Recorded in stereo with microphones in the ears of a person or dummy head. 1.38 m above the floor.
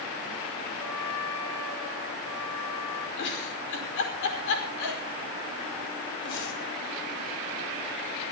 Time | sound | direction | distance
0.8 | a trumpet | 70° left (ahead or behind) | 8 m
3.2 | a giggle | 65° left (ahead or behind) | 5 m